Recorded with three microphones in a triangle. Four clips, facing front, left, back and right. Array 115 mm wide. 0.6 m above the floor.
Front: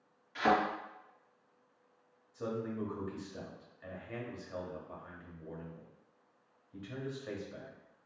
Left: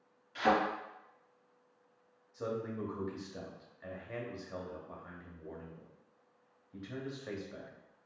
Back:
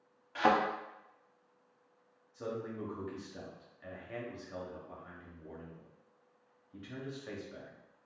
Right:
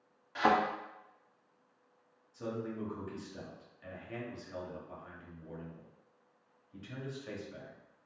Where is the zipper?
No zipper in this recording.